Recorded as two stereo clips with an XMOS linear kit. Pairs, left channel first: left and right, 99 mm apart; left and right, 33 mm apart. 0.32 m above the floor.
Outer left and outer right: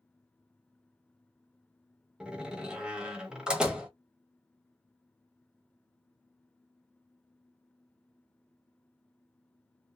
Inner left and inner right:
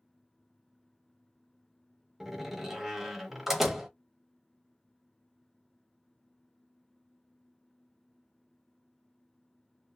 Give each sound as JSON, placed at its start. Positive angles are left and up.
{"t": 2.2, "sound": "a door slam", "side_deg": -10, "distance_m": 0.9}